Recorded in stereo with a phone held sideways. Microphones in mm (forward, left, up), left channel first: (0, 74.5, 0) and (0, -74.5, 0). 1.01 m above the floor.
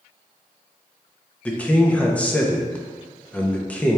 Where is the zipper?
I don't hear a zipper.